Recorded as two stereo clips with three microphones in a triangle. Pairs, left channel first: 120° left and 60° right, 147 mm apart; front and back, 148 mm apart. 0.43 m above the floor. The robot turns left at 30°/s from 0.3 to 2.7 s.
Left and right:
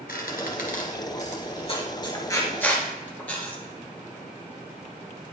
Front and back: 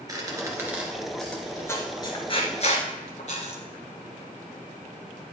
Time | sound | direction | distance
0.1 | a squeak | 115° left | 2 m